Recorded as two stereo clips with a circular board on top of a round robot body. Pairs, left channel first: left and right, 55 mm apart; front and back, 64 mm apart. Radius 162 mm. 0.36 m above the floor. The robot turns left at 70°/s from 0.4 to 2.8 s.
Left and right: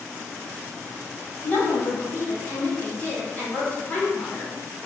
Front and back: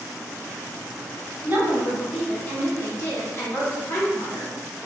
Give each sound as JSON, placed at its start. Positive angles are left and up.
{"t": 1.4, "sound": "a woman speaking", "azimuth_deg": 130, "distance_m": 1.7}